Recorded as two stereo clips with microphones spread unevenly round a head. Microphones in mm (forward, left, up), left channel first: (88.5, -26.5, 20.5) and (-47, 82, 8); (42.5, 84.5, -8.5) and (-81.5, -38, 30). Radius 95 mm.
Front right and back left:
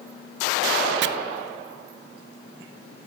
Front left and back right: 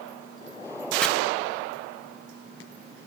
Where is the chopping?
130° left, 0.6 m.